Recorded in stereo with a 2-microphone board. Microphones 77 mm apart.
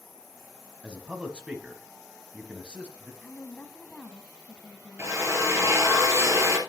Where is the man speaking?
15° right (ahead or behind), 1.3 m.